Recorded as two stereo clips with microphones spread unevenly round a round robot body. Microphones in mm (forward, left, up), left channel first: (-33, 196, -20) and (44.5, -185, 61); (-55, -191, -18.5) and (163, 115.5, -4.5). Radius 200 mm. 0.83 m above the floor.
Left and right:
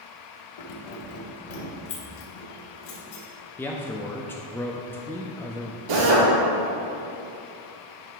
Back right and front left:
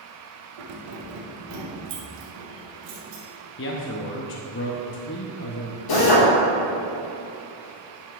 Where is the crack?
I don't hear a crack.